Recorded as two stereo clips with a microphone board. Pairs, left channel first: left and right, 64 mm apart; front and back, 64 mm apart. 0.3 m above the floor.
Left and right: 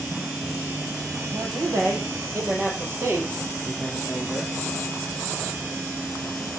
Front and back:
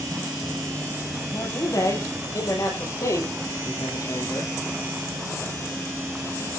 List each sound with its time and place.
1.3 s a man speaking: 45° right, 9 m; by 4.5 s 35° right, 8 m